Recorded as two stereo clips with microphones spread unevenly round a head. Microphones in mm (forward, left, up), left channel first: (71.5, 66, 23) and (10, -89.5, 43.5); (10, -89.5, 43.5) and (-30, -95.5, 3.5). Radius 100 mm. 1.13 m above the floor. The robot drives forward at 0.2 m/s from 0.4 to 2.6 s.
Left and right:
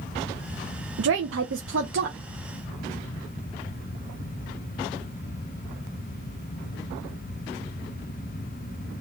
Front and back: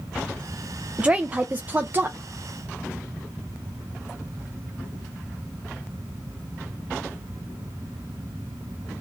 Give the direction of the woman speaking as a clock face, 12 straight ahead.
4 o'clock.